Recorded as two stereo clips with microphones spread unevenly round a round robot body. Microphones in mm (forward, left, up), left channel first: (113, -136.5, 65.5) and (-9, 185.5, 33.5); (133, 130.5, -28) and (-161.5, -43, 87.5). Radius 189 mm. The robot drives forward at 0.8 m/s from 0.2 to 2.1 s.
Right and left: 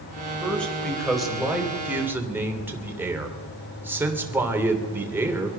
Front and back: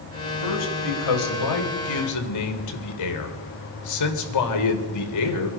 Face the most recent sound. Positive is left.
turn(degrees=30)